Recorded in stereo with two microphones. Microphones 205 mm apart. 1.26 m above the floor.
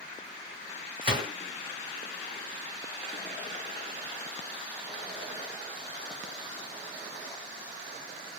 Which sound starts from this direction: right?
A gunshot, at 1.0 s.